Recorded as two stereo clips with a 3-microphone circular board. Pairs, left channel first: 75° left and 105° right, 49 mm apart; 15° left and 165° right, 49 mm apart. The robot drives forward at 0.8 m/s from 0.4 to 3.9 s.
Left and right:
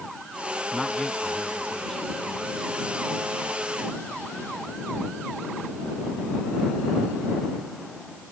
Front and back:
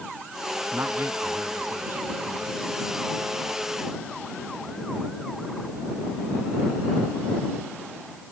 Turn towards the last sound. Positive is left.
turn(degrees=160)